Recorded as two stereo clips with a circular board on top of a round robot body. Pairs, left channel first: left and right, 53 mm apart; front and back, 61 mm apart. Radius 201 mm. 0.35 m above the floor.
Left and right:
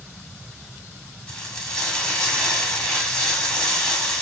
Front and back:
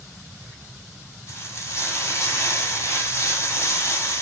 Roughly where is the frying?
Ahead left.